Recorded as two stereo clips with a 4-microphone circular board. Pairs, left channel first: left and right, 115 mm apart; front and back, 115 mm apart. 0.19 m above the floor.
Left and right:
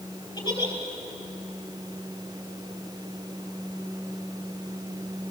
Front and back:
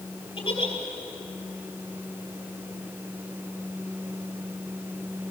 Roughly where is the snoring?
No snoring in this recording.